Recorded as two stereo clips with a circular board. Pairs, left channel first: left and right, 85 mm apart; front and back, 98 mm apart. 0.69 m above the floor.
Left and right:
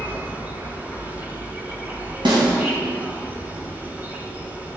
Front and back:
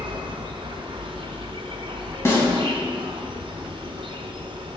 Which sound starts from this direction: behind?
An insect, at 0.0 s.